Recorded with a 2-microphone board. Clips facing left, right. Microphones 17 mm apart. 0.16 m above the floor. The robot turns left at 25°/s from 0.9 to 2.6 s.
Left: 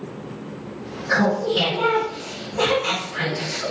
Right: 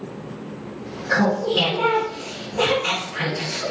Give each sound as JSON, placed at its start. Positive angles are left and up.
{"t": 1.1, "sound": "laughter", "side_deg": 15, "distance_m": 1.4}